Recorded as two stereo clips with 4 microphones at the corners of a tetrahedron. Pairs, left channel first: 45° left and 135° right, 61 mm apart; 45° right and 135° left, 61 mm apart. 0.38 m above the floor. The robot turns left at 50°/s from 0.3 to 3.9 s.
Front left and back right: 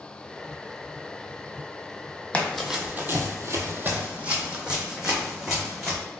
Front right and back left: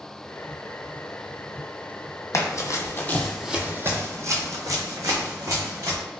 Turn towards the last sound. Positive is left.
turn(degrees=135)